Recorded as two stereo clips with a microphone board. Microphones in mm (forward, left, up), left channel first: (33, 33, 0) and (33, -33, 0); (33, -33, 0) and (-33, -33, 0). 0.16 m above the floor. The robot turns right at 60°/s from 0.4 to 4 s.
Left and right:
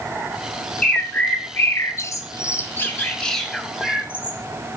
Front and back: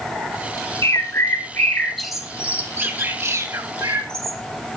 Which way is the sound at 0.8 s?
15° left.